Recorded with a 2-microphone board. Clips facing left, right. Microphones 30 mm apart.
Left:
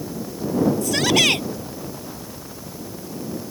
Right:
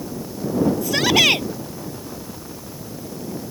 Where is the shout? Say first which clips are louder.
Right 4 dB; 10° right (ahead or behind).